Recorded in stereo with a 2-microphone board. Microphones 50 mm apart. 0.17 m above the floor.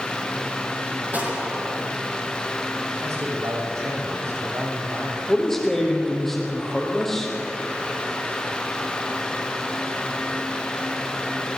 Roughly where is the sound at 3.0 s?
Right.